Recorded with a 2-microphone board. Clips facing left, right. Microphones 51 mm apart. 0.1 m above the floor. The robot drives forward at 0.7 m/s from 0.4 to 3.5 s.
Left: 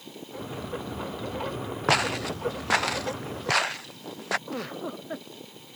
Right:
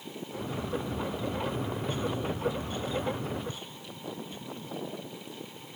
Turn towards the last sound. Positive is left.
turn(degrees=85)